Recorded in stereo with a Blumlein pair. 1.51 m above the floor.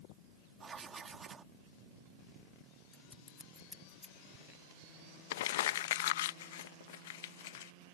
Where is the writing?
15° right.